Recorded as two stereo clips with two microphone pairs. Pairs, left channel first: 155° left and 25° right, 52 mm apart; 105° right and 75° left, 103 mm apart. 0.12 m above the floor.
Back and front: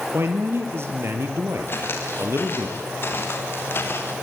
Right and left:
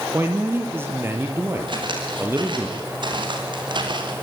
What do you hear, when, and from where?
0.1 s a man speaking: 5° left, 3 m
1.7 s footsteps: 115° left, 6.5 m